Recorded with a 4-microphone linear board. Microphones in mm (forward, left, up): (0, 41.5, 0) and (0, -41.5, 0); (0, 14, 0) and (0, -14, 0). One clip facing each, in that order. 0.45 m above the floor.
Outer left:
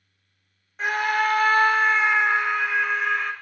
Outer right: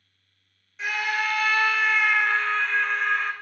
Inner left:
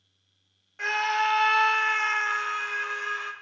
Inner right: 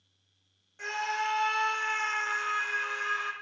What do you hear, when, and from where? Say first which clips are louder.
0.8 s a scream: outer left 5 dB, inner left 6 dB; 40° left (ahead or behind), 1.4 m; by 3.3 s centre (ahead or behind), 1.7 m